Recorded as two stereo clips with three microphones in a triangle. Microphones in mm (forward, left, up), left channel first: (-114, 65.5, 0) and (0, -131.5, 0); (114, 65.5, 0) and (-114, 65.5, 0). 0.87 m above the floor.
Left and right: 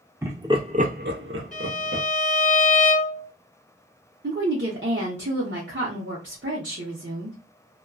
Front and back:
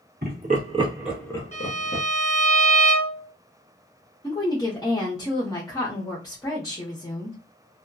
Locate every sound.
0.2 s laughter: 140° right, 1.0 m; by 2.0 s 35° right, 0.9 m
1.5 s a violin: 170° left, 1.6 m
4.2 s a woman speaking: 70° right, 0.8 m